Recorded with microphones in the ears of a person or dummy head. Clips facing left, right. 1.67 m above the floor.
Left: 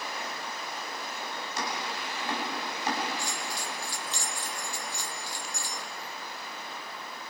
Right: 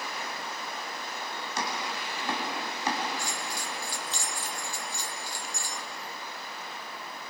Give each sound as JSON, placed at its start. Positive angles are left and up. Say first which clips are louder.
{"t": 1.6, "sound": "chopping", "louder": "right 1 dB", "side_deg": -65, "distance_m": 6.0}
{"t": 3.2, "sound": "a bell", "louder": "even", "side_deg": -80, "distance_m": 1.6}